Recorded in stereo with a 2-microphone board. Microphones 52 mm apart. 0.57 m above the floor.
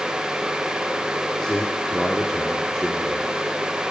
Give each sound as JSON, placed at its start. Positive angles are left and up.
{"t": 1.4, "sound": "a man speaking", "side_deg": 15, "distance_m": 0.8}